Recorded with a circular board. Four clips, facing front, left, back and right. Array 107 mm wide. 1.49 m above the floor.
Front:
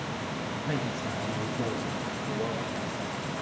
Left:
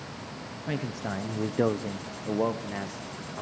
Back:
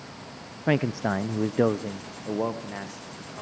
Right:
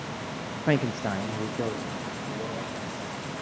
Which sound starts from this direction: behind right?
A man speaking, at 0.7 s.